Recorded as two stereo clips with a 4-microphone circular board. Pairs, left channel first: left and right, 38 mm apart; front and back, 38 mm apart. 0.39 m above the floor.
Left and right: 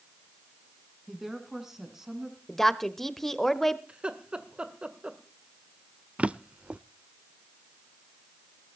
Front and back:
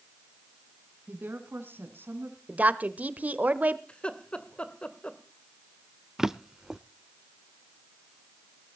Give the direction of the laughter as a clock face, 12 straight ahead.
1 o'clock.